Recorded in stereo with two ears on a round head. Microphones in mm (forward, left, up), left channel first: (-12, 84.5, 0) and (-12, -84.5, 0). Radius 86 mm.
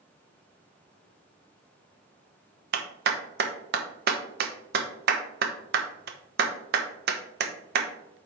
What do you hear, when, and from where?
2.7 s a clap: 55° right (ahead or behind), 1.0 m